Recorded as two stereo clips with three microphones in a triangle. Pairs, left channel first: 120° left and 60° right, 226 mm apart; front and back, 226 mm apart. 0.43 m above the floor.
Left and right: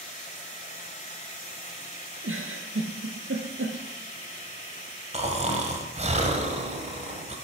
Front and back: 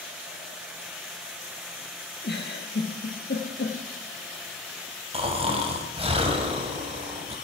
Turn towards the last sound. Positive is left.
turn(degrees=-120)